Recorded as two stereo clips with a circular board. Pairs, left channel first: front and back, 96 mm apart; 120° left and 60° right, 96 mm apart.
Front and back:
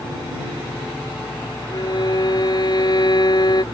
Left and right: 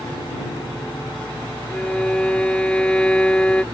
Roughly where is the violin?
Ahead left.